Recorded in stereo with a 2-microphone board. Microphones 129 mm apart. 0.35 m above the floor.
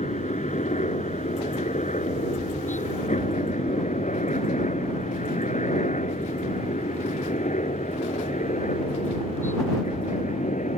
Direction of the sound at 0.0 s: 70° left (ahead or behind).